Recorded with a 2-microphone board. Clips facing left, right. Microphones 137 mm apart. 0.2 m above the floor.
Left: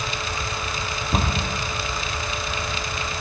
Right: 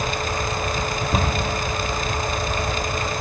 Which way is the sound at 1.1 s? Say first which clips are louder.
Even; centre (ahead or behind).